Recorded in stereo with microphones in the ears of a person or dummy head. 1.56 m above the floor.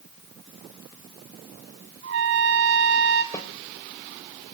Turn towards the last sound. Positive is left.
turn(degrees=15)  # may be behind; listen again after turning